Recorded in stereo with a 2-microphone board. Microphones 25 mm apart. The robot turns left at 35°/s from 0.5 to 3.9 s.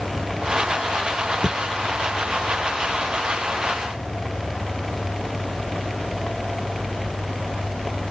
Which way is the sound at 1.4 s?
25° right (ahead or behind).